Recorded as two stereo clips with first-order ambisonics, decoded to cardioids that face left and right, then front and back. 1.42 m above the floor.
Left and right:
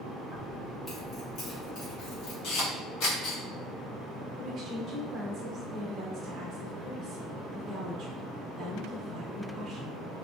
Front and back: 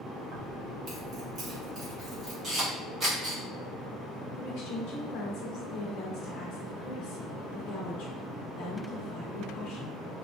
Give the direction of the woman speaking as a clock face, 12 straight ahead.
1 o'clock.